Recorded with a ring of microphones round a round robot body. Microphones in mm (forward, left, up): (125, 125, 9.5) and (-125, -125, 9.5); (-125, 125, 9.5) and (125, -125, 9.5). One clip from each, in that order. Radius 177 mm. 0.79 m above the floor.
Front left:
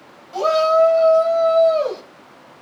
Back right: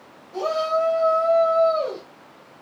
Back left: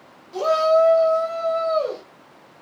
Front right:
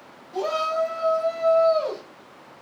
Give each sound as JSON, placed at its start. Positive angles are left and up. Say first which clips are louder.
{"t": 0.3, "sound": "a shout", "louder": "front left 7 dB, back left 7 dB", "azimuth_deg": 90, "distance_m": 1.5}